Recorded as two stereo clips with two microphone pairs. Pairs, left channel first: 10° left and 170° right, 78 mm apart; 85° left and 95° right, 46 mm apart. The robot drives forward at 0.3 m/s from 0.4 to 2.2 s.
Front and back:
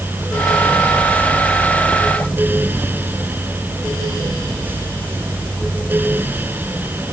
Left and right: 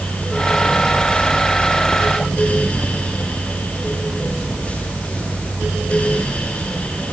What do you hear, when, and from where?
Only background noise.